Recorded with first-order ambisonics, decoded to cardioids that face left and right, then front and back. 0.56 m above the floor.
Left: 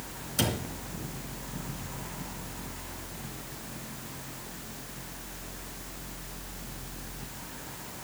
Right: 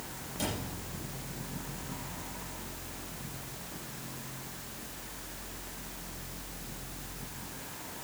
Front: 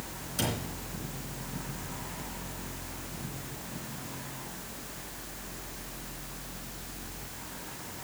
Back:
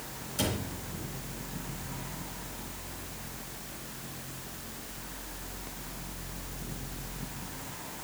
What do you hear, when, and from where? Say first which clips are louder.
0.4 s a cupboard door: left 6 dB, even; 85° left, 3 m